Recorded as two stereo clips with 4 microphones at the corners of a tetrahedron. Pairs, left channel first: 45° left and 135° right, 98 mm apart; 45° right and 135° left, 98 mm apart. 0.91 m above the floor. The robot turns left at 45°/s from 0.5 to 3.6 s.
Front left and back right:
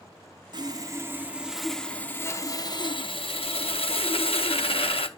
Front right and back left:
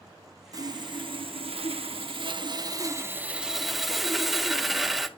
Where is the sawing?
175° right, 0.8 m; by 5.1 s 45° left, 0.8 m.